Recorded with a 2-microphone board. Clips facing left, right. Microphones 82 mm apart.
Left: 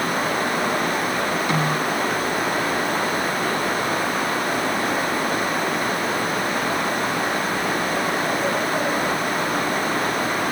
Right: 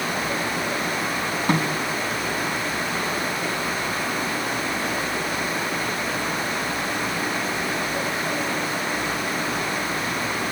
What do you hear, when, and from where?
1.5 s a snare drum: 40° right (ahead or behind), 5.5 m